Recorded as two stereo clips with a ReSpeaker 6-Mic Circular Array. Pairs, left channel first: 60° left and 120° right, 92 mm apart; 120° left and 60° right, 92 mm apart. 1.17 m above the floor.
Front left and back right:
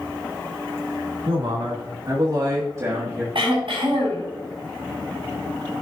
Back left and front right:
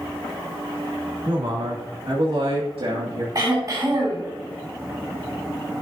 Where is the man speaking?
95° right, 2.5 m; by 3.2 s 50° right, 1.9 m.